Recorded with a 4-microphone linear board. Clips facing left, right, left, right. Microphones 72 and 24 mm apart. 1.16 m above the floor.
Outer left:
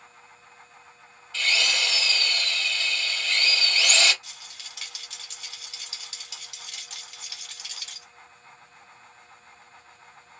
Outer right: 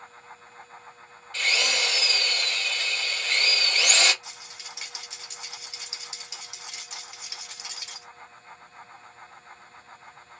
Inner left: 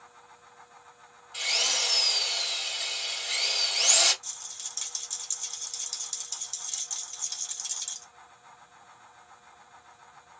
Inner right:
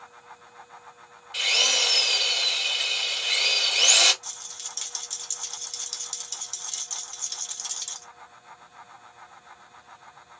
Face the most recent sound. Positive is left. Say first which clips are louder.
# outer right 3 dB, inner right 2 dB
turn(degrees=-20)  # may be behind; listen again after turning